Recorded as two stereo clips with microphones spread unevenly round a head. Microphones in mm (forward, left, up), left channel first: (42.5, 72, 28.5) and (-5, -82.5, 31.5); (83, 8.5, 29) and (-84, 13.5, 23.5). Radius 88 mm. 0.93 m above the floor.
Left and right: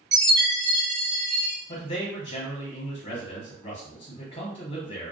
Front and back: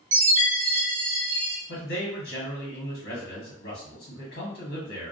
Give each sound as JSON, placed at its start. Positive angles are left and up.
{"t": 0.1, "sound": "a chime", "azimuth_deg": -170, "distance_m": 1.4}
{"t": 1.7, "sound": "a man speaking", "azimuth_deg": 15, "distance_m": 1.1}